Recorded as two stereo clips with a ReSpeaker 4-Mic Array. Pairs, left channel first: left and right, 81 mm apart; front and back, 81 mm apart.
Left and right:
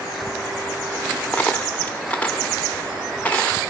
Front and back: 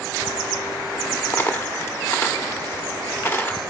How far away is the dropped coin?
About 1.1 m.